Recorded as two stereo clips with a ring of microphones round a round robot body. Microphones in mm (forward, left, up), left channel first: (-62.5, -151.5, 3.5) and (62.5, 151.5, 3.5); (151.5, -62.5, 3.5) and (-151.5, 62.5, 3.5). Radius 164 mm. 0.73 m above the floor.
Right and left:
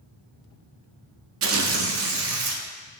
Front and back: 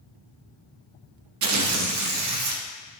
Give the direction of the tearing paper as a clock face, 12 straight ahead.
8 o'clock.